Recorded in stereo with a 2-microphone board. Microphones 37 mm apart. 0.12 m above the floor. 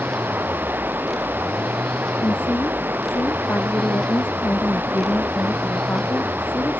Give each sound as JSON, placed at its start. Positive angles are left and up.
{"t": 0.0, "sound": "running water", "side_deg": -65}
{"t": 2.2, "sound": "a woman speaking", "side_deg": 75}